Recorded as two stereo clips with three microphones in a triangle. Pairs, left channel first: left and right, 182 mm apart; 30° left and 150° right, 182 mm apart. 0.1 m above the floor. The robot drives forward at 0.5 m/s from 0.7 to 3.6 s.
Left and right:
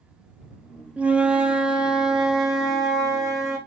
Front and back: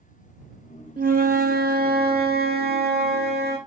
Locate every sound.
1.0 s a flute: 175° right, 0.6 m; by 3.6 s straight behind, 1.9 m